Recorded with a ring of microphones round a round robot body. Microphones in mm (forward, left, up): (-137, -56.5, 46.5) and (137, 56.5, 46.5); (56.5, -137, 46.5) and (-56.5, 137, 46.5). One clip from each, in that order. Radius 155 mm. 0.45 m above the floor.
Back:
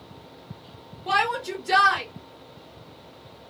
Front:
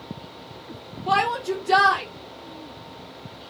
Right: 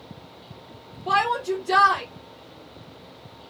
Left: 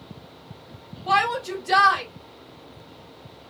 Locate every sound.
1.1 s a shout: straight behind, 1.5 m